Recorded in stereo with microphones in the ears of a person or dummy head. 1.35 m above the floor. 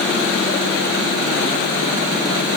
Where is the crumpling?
No crumpling in this recording.